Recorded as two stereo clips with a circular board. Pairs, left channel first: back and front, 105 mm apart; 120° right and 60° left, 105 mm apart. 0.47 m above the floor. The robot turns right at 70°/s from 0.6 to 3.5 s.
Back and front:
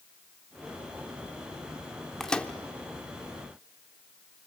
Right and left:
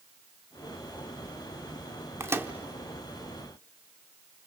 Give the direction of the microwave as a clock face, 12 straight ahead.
9 o'clock.